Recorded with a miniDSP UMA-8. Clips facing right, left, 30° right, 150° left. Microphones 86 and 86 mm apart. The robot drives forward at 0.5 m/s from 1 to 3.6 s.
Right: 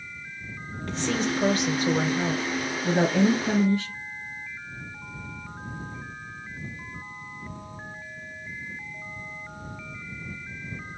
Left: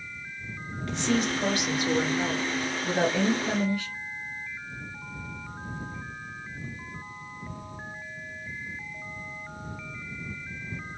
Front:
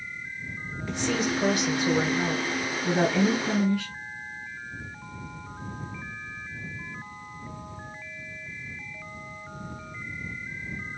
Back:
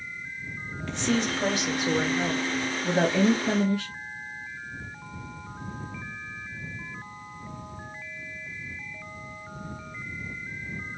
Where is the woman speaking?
105° right, 1.7 m; by 3.9 s 145° right, 2.5 m.